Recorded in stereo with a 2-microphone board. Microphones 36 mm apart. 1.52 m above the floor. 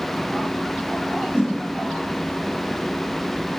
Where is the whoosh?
35° right (ahead or behind), 5.5 m.